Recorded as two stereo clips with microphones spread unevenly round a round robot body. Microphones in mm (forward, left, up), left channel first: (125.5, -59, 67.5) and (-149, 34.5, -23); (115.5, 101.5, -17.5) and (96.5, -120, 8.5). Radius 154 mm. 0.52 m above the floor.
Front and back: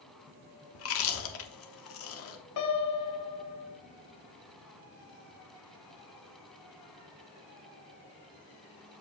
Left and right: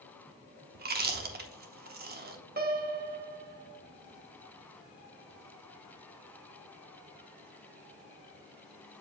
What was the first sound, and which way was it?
Chewing, 60° right.